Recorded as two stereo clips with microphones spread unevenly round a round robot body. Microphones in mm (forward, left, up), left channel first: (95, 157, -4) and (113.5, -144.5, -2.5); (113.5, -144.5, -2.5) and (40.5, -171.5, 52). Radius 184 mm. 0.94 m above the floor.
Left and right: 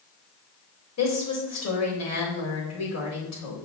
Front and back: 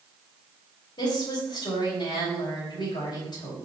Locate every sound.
1.0 s a woman speaking: 60° left, 4 m